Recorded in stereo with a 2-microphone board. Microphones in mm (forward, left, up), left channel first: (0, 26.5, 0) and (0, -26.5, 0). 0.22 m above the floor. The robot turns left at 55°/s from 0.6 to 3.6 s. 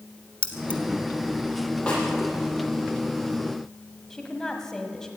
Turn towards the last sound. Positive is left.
turn(degrees=10)  # may be behind; listen again after turning